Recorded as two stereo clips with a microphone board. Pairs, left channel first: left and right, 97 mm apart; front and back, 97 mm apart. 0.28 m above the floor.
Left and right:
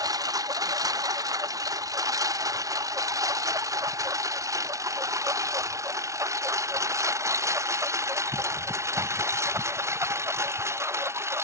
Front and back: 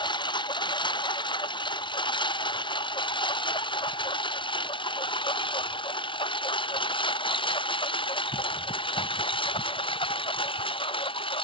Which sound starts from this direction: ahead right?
A lawn mower, at 0.0 s.